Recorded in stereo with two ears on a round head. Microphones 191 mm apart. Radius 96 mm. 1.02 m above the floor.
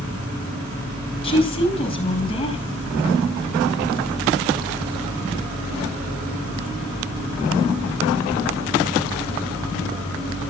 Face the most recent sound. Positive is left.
turn(degrees=25)  # may be behind; listen again after turning